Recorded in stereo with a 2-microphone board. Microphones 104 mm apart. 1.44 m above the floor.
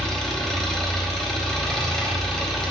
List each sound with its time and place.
0.0 s an engine running: 5° left (ahead or behind), 4 m